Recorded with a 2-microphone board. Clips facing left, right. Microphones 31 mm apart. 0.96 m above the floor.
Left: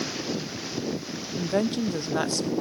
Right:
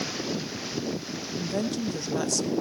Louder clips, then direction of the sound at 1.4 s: Left 4 dB; 25° left (ahead or behind).